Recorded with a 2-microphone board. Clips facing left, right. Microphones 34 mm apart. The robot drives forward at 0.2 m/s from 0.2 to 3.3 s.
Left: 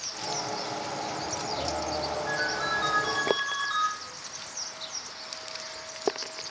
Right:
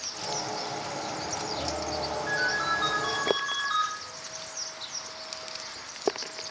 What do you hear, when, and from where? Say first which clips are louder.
2.3 s a ringtone: right 4 dB; 20° right (ahead or behind), 1.5 m; by 3.9 s 15° right (ahead or behind), 1.7 m